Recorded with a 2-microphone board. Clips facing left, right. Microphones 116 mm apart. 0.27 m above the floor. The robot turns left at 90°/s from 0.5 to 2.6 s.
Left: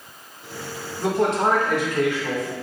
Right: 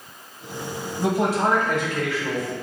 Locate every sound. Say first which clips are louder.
1.0 s a man speaking: left 1 dB; 20° right (ahead or behind), 1.0 m; by 2.5 s 25° left (ahead or behind), 1.0 m